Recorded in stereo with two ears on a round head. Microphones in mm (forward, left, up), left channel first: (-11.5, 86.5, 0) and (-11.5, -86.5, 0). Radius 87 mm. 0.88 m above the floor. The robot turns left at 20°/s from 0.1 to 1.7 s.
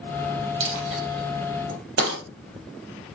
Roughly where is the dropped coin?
Right.